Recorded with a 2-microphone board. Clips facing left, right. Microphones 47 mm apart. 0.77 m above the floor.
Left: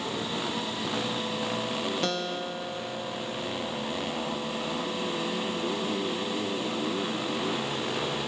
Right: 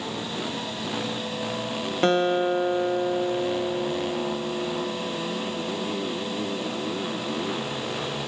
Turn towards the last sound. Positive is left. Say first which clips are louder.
# right 10 dB
turn(degrees=-35)  # may be behind; listen again after turning